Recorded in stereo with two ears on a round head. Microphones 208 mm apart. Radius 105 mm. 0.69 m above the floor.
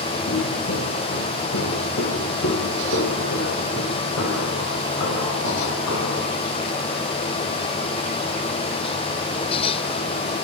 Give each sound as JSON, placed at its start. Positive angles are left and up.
{"t": 0.3, "sound": "footsteps", "side_deg": 45, "distance_m": 6.5}